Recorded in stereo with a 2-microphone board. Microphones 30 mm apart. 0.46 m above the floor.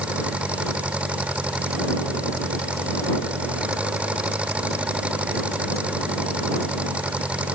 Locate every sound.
0.0 s an engine running: 45° right (ahead or behind)